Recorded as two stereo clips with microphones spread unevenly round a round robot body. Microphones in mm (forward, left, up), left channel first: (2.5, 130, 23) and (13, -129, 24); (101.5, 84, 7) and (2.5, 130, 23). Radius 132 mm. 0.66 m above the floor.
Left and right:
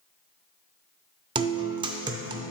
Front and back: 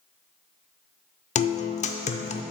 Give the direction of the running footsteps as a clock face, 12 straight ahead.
No running footsteps in this recording.